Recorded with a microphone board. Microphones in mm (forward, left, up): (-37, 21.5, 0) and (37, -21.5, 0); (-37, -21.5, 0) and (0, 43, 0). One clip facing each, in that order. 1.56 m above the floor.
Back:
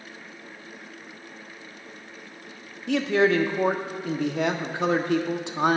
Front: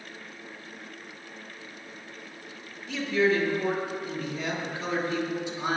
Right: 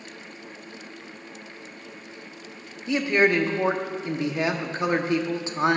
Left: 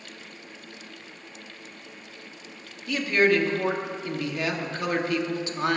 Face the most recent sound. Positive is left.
turn(degrees=175)